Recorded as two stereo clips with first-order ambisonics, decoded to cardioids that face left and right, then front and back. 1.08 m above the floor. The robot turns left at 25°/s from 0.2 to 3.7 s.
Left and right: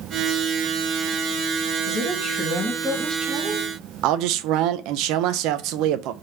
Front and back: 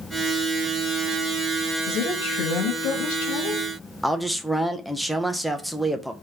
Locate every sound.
1.9 s a woman speaking: 25° left, 1.6 m; by 3.7 s 20° right, 1.6 m
4.0 s a man speaking: 90° right, 0.5 m